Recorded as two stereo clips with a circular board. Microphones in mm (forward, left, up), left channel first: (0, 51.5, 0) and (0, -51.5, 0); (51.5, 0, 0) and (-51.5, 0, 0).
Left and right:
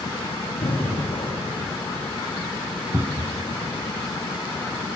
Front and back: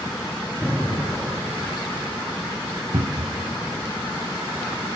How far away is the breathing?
About 5.5 m.